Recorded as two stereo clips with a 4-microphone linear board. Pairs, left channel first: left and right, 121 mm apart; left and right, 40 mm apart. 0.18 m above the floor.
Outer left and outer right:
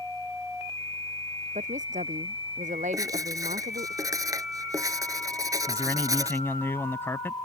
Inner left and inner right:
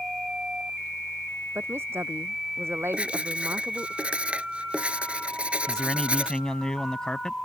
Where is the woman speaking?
85° right.